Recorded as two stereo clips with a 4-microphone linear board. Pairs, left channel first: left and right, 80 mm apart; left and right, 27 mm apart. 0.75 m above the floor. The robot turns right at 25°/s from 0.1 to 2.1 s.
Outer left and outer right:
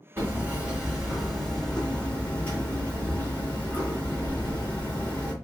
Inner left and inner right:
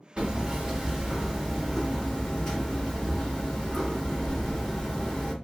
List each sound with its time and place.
0.2 s hammering: 30° right, 1.6 m; by 5.3 s 20° left, 1.6 m